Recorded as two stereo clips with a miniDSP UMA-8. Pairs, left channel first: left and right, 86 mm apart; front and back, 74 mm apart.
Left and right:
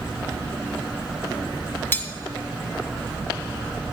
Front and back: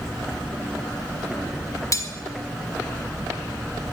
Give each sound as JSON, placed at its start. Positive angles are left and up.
{"t": 1.9, "sound": "cutlery clinking", "azimuth_deg": 25, "distance_m": 0.9}